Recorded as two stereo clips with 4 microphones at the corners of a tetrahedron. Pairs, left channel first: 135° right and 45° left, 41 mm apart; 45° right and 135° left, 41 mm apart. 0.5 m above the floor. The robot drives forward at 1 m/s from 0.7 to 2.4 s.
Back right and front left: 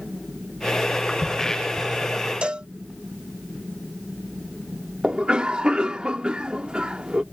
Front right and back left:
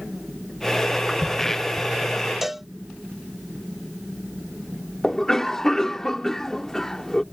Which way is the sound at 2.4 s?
55° left.